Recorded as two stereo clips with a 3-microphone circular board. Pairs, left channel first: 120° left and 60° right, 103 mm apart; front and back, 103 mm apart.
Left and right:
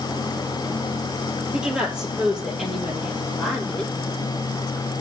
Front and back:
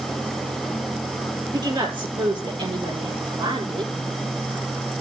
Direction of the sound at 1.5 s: 140° right.